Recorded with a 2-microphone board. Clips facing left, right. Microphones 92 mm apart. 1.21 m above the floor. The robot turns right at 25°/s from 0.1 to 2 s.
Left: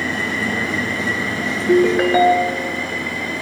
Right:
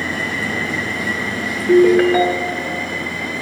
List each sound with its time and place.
1.7 s a ringtone: 5° left (ahead or behind), 0.8 m; by 2.7 s 10° left (ahead or behind), 0.8 m